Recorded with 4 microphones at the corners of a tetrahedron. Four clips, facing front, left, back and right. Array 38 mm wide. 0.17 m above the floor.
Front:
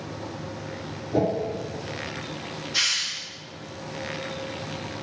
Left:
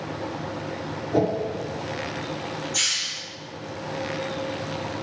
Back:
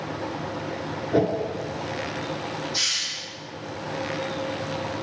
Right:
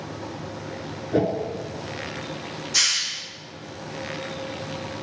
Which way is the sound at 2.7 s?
70° right.